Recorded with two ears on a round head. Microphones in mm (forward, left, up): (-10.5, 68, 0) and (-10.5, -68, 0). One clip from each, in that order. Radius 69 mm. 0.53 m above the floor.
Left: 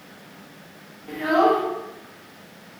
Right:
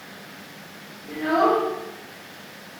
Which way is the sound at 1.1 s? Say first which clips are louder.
Left 1 dB; 50° left (ahead or behind).